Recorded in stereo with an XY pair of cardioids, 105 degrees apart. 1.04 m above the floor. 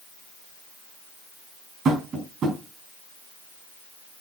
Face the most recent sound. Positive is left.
turn(degrees=-65)